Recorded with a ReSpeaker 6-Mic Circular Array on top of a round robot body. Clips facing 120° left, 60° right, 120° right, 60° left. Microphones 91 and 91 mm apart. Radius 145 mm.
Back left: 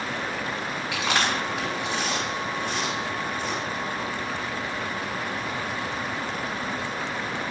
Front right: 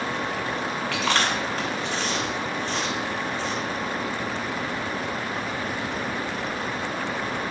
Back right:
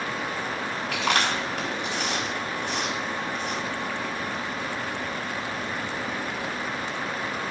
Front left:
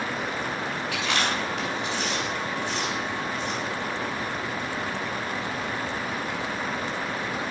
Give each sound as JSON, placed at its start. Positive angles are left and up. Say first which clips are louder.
{"t": 0.9, "sound": "chewing", "louder": "even, back right 3 dB", "azimuth_deg": -165, "distance_m": 4.5}